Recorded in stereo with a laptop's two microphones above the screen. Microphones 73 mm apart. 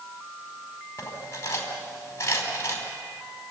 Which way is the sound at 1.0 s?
45° left (ahead or behind).